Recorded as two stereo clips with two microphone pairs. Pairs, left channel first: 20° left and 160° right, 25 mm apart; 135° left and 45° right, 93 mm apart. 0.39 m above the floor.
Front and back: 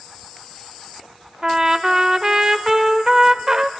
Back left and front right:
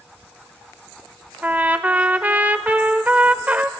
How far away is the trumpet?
About 0.6 m.